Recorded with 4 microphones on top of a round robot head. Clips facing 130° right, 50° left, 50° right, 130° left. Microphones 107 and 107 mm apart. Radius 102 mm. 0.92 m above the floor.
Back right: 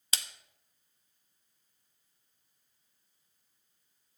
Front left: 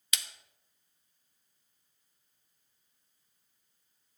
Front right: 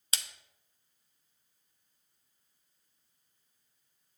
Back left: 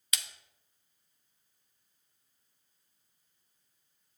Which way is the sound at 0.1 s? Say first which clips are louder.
Even, even; 90° right.